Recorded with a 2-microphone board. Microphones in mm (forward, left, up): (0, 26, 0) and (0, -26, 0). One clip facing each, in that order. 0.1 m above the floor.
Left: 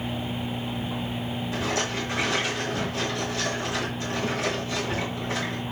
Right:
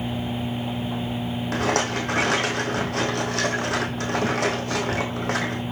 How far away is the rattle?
About 2.5 m.